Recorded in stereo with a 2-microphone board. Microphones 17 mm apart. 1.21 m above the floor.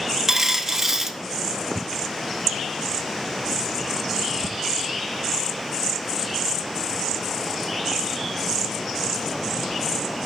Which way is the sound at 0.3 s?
20° right (ahead or behind).